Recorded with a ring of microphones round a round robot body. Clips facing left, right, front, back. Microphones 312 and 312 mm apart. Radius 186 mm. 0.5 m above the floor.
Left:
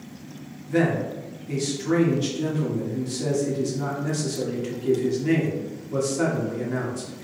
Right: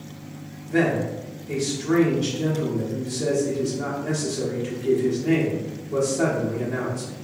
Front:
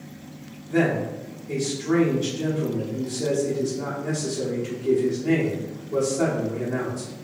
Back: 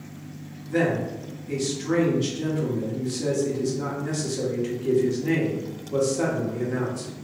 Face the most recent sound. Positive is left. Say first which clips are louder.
# right 1 dB, front 1 dB
turn(degrees=125)